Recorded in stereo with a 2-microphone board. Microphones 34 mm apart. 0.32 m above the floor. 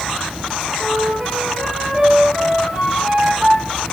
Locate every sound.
0.8 s a flute: 15° right (ahead or behind), 5.5 m